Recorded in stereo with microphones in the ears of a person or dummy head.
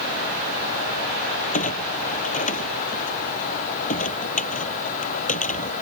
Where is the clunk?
40° left (ahead or behind).